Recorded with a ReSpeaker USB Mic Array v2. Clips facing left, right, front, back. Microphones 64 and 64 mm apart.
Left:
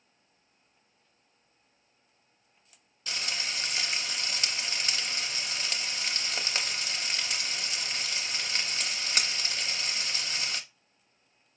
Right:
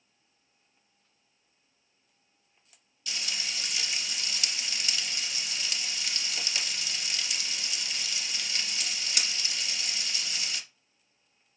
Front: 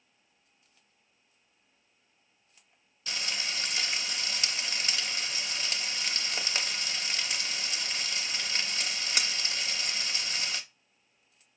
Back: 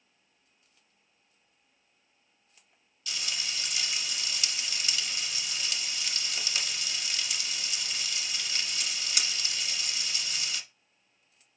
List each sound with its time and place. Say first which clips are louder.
3.1 s frying: left 2 dB, front 2 dB; 45° left, 0.7 m